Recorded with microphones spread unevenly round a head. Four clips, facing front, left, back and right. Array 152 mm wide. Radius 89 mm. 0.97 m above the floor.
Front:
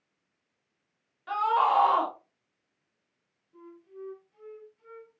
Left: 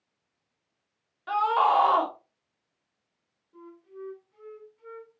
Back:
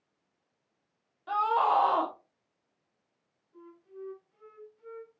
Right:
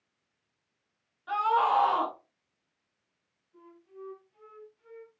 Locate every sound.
1.3 s a scream: 135° left, 2.5 m
3.5 s a flute: 95° left, 4 m